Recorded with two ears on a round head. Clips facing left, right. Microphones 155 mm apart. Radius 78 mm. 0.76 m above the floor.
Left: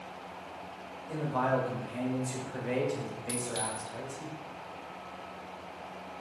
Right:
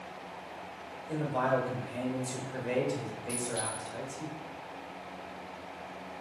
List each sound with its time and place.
1.1 s a man speaking: 10° right (ahead or behind), 2.5 m
3.3 s a clink: 40° left (ahead or behind), 2 m